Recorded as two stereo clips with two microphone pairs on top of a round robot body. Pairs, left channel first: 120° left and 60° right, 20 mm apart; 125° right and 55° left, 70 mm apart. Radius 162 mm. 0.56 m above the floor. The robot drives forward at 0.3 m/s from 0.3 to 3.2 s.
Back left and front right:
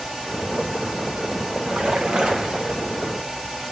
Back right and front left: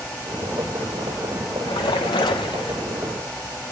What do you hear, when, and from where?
1.6 s a splash: 95° right, 0.5 m; by 2.8 s 130° right, 0.7 m